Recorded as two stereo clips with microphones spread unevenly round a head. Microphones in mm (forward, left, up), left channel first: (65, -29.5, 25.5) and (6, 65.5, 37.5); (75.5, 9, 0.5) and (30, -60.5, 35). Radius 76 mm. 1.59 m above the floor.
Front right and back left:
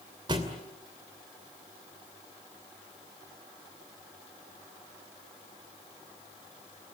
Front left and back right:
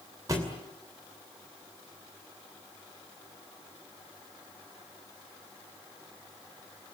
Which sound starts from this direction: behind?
A thud, at 0.3 s.